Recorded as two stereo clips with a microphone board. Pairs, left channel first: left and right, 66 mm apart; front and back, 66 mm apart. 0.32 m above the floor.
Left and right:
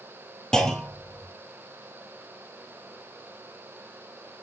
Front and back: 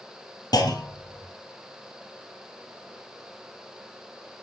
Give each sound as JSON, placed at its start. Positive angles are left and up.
{"t": 0.5, "sound": "a clunk", "azimuth_deg": 10, "distance_m": 2.0}